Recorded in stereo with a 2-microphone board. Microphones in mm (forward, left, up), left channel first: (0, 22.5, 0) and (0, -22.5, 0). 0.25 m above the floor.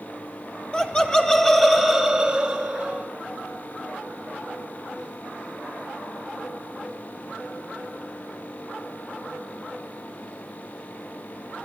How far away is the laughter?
About 1.3 m.